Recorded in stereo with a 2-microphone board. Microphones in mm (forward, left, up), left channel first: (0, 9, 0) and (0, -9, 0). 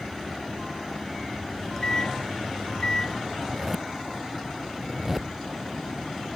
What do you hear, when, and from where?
1.5 s a microwave: 35° left (ahead or behind)
3.4 s a zipper: 10° right (ahead or behind)